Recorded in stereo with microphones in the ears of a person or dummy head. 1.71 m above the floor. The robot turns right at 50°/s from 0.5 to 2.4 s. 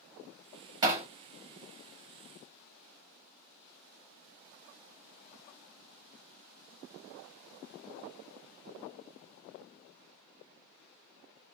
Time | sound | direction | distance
0.8 | hammering | 25° right (ahead or behind) | 1.8 m